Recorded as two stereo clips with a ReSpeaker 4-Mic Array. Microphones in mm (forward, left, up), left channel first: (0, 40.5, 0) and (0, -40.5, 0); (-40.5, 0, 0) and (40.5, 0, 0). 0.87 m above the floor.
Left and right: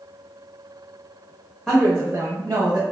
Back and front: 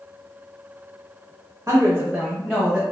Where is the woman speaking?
10° left, 0.8 m; by 2.8 s 115° right, 1.0 m.